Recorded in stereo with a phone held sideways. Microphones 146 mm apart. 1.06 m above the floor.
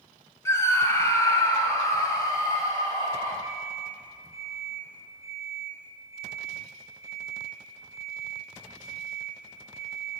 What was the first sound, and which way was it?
A scream, 20° left (ahead or behind).